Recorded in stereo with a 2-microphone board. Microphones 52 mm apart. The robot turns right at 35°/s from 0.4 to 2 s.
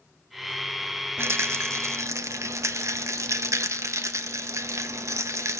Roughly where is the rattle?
Right.